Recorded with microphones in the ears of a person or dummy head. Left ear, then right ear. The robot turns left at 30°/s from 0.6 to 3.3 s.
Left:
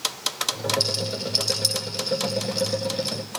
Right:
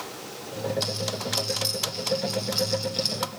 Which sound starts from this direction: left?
A rattle, at 0.8 s.